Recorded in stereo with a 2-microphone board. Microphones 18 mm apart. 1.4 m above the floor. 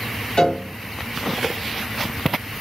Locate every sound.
0.4 s a piano: 65° left (ahead or behind), 1.0 m